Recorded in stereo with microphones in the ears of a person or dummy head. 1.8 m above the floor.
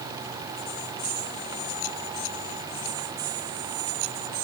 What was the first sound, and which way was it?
Only background noise.